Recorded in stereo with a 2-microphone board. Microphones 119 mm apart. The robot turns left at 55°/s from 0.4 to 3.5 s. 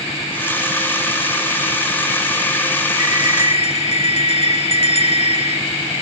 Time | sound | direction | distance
3.0 | a bell | 85° left | ?